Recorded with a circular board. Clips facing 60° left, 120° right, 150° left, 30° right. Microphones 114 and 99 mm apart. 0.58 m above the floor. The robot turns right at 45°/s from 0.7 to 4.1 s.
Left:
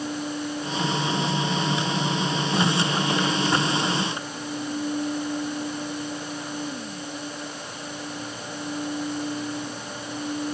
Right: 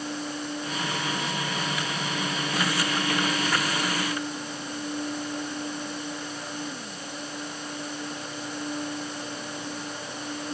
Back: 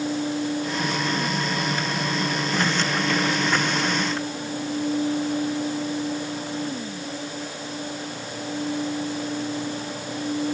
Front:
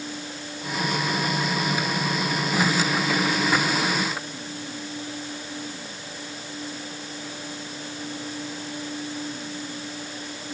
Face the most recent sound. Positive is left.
No sound to turn to.